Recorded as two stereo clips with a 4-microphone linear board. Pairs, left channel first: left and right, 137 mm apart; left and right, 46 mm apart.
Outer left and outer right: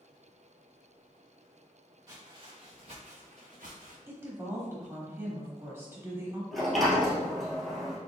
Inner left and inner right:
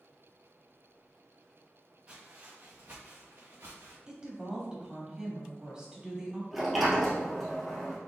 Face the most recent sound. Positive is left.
turn(degrees=0)  # may be behind; listen again after turning